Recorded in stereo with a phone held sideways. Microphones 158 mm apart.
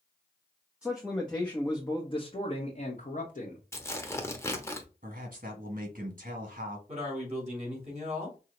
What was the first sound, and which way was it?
A man speaking, 5° right (ahead or behind).